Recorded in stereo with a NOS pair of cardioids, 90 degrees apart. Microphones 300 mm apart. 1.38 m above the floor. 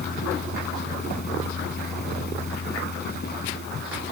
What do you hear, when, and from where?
0.0 s a fan: 35° left